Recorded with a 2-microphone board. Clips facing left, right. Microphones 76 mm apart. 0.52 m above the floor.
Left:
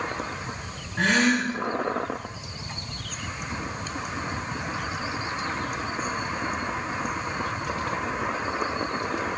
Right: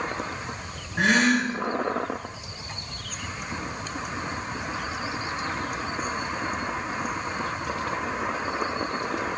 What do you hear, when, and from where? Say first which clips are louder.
1.0 s a gasp: right 1 dB; 15° right (ahead or behind), 0.7 m